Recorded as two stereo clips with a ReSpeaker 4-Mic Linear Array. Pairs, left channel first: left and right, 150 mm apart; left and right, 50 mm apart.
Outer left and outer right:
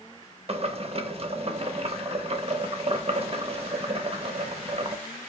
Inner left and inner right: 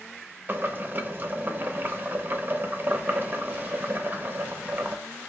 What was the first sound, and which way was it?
Boiling, 40° right (ahead or behind).